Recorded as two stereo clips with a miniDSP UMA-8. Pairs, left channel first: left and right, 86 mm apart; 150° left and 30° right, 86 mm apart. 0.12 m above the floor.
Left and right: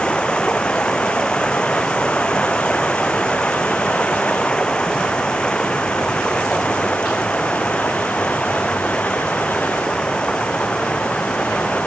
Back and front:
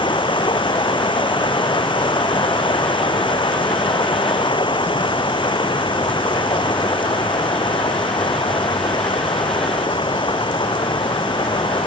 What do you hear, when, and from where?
0.0 s running water: 170° left